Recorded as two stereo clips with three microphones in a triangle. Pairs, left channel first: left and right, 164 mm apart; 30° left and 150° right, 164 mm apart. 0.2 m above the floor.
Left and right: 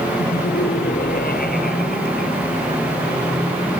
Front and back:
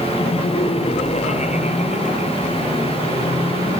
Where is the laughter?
80° left; by 2.8 s 65° left.